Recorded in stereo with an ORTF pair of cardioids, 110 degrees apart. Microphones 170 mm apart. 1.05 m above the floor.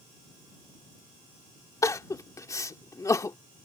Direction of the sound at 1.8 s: 20° left.